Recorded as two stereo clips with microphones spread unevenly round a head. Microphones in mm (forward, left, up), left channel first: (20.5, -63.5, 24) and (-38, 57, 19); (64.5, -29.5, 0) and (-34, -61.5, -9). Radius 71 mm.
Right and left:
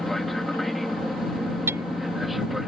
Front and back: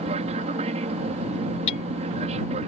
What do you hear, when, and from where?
0.0 s an aircraft: 155° right
1.7 s hammering: 40° left